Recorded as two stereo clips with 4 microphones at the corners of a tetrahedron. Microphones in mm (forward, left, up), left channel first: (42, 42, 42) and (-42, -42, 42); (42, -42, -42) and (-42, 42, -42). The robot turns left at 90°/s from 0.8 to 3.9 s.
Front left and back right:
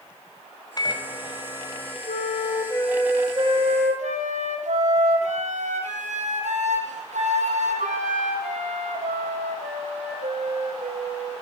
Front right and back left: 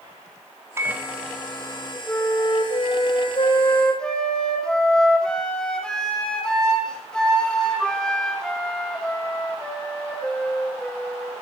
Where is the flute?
35° left, 2.5 m; by 11.4 s 130° right, 2.5 m.